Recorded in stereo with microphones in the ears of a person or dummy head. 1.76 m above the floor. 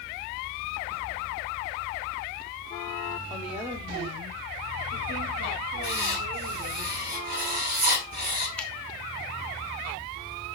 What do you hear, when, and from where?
3.3 s a woman speaking: centre (ahead or behind), 1.2 m; by 6.8 s 70° right (ahead or behind), 5.5 m
5.8 s writing: 50° right (ahead or behind), 5 m
8.6 s a finger snap: 5° left (ahead or behind), 1.3 m